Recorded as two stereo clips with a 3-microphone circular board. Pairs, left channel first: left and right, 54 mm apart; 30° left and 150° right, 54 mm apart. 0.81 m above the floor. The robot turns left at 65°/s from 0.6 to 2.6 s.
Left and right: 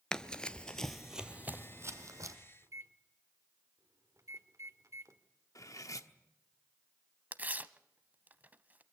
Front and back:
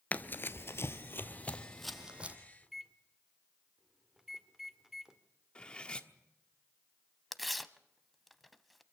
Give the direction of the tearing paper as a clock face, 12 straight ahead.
2 o'clock.